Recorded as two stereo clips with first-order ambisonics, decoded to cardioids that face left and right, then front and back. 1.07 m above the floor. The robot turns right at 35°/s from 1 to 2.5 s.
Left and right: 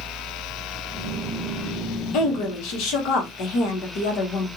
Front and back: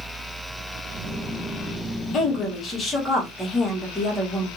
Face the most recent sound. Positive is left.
turn(degrees=75)